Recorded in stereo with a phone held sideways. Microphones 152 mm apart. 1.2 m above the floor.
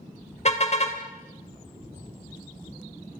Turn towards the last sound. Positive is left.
turn(degrees=45)  # may be behind; listen again after turning